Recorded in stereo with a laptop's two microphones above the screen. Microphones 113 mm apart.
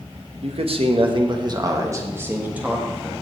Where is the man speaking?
60° right (ahead or behind), 1.2 m; by 3.2 s 5° right (ahead or behind), 1.6 m.